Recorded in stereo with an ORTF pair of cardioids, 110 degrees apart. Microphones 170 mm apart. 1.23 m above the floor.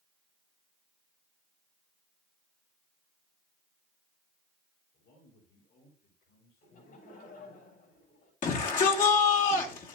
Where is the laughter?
60° left, 6.5 m.